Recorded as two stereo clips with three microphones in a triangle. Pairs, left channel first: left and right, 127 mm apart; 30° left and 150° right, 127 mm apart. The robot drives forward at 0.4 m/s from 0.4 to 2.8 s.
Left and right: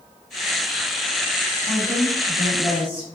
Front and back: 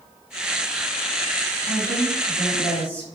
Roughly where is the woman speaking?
Behind right.